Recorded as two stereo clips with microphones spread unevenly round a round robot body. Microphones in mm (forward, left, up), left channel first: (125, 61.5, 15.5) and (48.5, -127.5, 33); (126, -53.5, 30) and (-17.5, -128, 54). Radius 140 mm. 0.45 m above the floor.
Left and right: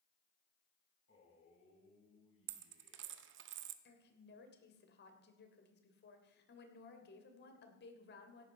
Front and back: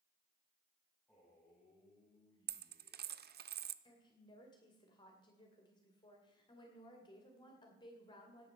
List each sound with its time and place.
1.1 s a man speaking: 110° left, 4.5 m; by 3.5 s 100° left, 5.5 m
2.5 s a dropped coin: 140° right, 0.6 m
3.9 s a woman speaking: 85° left, 2.5 m